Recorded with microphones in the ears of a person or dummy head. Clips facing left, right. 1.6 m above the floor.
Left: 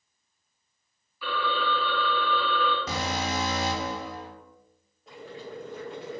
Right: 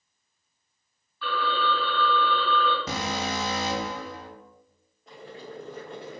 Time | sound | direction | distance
1.2 | a phone ringing | 10° left (ahead or behind) | 1.1 m
2.9 | an alarm | 75° right (ahead or behind) | 0.8 m
5.1 | boiling | centre (ahead or behind) | 0.9 m